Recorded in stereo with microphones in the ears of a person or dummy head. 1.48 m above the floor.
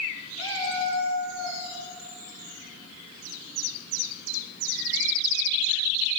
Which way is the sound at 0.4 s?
75° right (ahead or behind).